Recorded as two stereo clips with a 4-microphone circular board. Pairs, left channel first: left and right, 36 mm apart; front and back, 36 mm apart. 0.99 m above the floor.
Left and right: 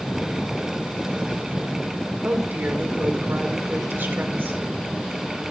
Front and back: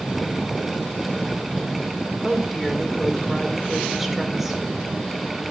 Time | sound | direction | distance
2.2 | a woman speaking | 95° right | 2.5 m